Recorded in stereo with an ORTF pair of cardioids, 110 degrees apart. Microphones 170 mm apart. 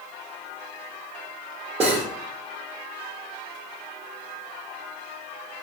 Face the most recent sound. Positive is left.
turn(degrees=-35)